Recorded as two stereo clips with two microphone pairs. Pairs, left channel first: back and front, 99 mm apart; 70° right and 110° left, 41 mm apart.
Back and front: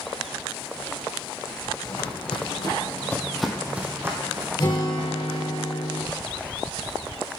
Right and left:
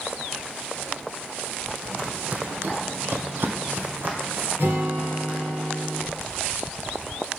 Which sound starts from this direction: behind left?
A guitar, at 4.6 s.